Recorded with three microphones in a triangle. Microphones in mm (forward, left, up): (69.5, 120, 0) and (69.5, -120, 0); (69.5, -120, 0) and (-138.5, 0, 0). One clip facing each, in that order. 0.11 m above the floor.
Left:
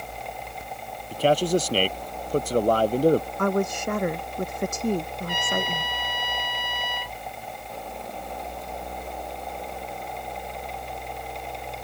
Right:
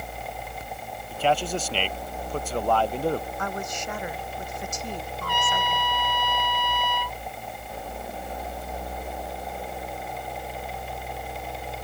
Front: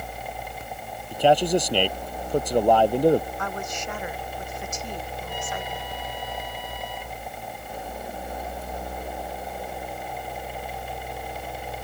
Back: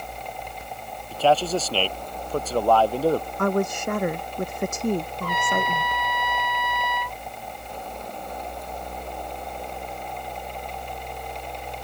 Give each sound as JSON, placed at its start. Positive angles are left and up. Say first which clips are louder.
{"t": 1.1, "sound": "a man speaking", "louder": "left 5 dB, front 2 dB", "azimuth_deg": 45}
{"t": 3.4, "sound": "a woman speaking", "louder": "left 9 dB, back 10 dB", "azimuth_deg": 120}
{"t": 5.2, "sound": "a trumpet", "louder": "left 2 dB, back 6 dB", "azimuth_deg": 160}